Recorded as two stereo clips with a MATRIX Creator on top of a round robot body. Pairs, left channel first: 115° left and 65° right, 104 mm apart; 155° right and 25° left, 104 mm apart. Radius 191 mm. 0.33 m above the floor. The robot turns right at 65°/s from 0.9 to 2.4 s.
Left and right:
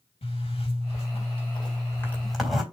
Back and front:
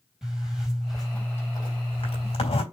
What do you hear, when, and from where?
0.2 s a zipper: 110° left, 4 m; by 2.6 s 155° right, 4 m